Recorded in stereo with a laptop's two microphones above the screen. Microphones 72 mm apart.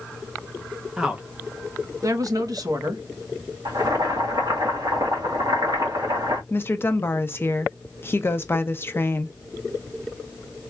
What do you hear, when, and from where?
1.0 s a woman speaking: 10° right (ahead or behind), 0.6 m; by 3.0 s 60° right (ahead or behind), 1.1 m
3.6 s boiling: 65° right (ahead or behind), 1.9 m
6.5 s a woman speaking: 30° left (ahead or behind), 0.6 m